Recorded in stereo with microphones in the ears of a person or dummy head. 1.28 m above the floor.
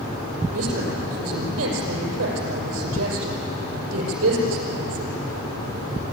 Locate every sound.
0.5 s a woman speaking: 90° right, 5.5 m